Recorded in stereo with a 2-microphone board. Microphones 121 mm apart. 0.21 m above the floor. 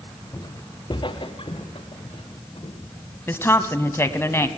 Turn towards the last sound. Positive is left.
turn(degrees=20)  # may be behind; listen again after turning